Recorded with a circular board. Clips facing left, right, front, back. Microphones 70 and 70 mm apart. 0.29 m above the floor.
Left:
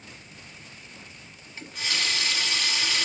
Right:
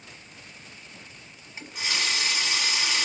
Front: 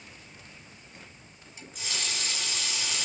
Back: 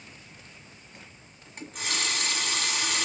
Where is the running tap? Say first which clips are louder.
Right 1 dB, back 5 dB; 155° right, 1.6 m.